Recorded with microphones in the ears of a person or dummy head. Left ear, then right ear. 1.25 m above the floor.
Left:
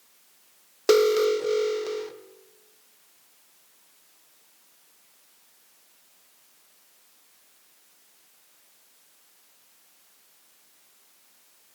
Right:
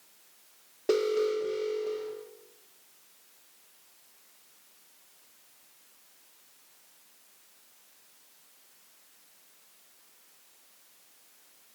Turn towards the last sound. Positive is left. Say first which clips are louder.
# left 7 dB
turn(degrees=50)  # may be behind; listen again after turning